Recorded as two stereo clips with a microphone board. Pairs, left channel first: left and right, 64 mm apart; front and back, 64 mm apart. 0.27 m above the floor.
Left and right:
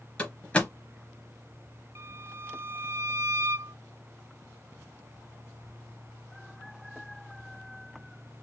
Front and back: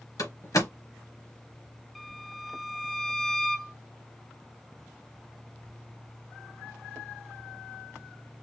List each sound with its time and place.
0.2 s a door slam: 20° left, 3 m
1.9 s a violin: 90° right, 0.8 m